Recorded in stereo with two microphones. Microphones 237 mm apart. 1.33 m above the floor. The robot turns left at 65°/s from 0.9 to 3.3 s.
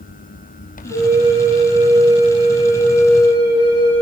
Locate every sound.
0.9 s a flute: 40° right, 1.5 m; by 4.0 s 160° left, 1.5 m